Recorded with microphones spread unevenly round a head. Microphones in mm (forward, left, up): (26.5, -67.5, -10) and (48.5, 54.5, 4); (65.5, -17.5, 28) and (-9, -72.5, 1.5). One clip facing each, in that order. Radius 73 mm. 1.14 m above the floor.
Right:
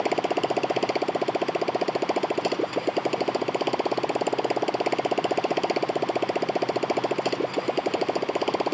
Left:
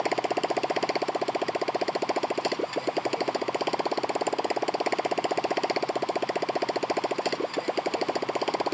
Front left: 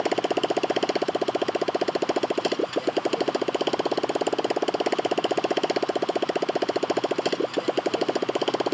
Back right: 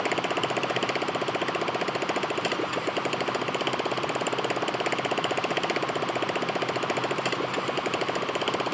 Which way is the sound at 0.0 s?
25° right.